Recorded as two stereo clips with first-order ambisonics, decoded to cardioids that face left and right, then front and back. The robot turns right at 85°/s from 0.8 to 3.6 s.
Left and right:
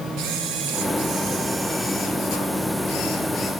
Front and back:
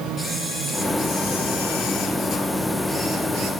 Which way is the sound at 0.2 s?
80° right.